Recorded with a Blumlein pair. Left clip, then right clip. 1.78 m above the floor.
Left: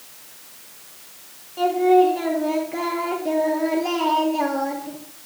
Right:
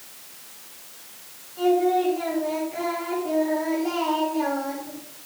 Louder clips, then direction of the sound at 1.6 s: Left 5 dB; 25° left.